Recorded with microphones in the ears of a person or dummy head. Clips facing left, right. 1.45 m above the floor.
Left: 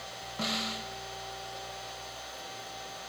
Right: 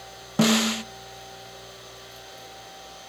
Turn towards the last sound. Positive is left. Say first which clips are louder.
# right 16 dB
turn(degrees=-75)  # may be behind; listen again after turning